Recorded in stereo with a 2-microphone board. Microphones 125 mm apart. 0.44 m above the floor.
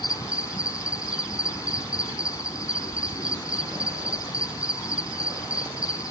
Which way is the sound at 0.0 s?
30° left (ahead or behind).